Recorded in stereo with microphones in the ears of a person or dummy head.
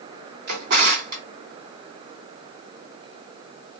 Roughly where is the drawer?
Right.